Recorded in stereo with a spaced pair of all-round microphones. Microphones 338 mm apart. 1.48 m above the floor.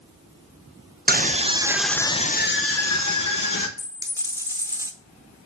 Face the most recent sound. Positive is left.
turn(degrees=-10)  # may be behind; listen again after turning